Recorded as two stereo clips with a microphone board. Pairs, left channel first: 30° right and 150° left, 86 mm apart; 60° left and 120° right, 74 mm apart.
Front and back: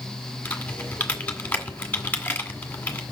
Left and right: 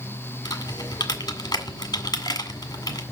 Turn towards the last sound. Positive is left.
turn(degrees=40)